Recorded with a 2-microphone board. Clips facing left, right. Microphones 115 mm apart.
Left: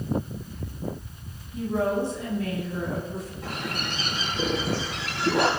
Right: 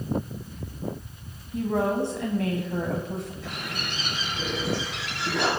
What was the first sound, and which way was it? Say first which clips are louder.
A woman speaking: right 1 dB; 75° right (ahead or behind).